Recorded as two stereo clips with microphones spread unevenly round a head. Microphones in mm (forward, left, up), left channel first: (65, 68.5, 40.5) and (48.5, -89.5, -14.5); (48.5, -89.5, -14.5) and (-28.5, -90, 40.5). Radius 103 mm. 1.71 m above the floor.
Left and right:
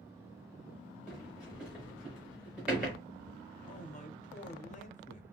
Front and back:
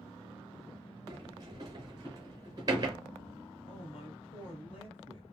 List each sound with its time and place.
1.1 s a sliding door: 170° left, 0.9 m
3.7 s a man speaking: 45° left, 0.8 m